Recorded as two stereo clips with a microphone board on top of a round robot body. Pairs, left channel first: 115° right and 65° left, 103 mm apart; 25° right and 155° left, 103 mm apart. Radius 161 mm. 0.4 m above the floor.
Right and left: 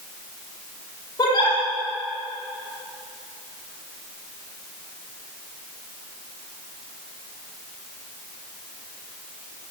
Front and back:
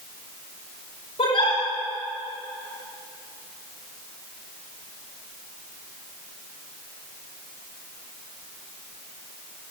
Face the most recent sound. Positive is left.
turn(degrees=-60)